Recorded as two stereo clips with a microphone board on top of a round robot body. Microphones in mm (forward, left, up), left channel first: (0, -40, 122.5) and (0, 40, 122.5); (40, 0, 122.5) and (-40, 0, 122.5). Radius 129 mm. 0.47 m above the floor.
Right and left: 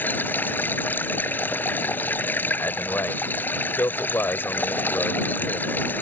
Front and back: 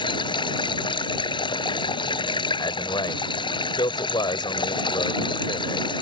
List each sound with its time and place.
0.0 s running water: 25° right
2.6 s a man speaking: 30° right